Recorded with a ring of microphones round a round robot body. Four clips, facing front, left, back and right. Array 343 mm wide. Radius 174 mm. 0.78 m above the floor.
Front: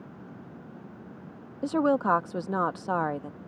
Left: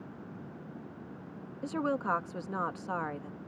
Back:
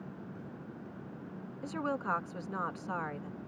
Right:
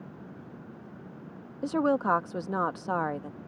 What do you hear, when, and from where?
1.6 s a woman speaking: 30° right